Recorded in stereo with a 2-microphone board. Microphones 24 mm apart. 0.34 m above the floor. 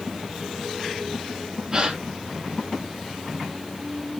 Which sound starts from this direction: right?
A gasp, at 1.7 s.